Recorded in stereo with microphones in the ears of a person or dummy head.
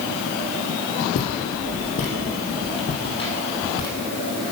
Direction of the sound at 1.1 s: 55° left (ahead or behind).